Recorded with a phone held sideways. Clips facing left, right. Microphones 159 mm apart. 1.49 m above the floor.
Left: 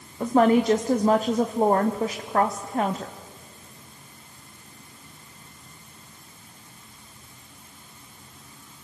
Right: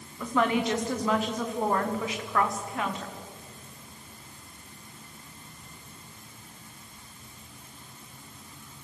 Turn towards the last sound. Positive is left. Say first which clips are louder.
# left 7 dB
turn(degrees=40)  # may be behind; listen again after turning